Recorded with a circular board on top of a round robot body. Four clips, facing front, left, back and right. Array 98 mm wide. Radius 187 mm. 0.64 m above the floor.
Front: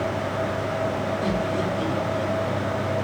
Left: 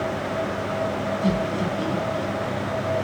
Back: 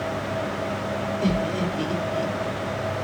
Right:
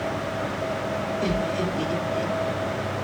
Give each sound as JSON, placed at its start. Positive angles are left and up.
{"t": 1.2, "sound": "laughter", "azimuth_deg": -145, "distance_m": 8.0}